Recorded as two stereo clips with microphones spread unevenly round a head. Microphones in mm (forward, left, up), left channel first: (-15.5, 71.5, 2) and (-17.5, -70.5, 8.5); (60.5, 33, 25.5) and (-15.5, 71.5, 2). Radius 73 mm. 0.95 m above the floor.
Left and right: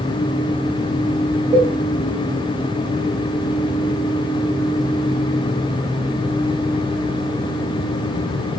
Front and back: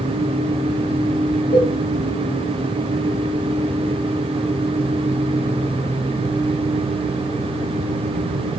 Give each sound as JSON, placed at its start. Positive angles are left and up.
{"t": 1.5, "sound": "a cowbell", "azimuth_deg": -25, "distance_m": 1.2}